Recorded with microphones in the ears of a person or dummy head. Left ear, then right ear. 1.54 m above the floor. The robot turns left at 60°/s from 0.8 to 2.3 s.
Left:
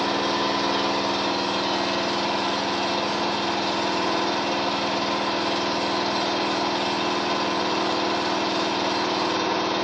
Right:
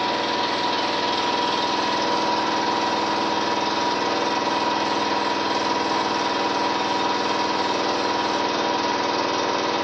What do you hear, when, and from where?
0.0 s an engine running: 20° right, 2.5 m; by 9.8 s 110° right, 2.5 m